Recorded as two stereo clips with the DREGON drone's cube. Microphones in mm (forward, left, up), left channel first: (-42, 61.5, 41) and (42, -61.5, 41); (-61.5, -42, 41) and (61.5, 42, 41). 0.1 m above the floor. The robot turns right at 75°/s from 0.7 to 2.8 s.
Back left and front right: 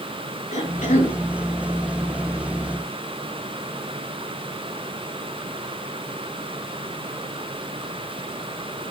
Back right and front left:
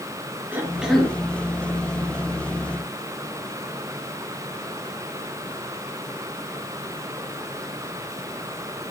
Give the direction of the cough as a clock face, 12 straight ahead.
8 o'clock.